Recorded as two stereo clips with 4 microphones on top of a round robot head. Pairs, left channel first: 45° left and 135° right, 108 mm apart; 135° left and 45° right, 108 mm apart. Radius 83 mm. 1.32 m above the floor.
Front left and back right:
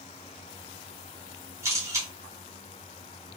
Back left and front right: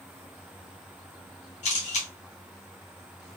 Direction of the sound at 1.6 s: 155° left.